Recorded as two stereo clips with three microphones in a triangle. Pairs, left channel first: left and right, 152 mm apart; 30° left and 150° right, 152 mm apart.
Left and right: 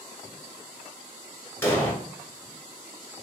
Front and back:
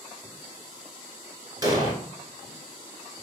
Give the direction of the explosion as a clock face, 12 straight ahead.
7 o'clock.